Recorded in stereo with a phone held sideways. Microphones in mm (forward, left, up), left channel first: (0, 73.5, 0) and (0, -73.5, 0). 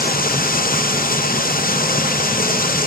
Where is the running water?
80° left, 0.8 m.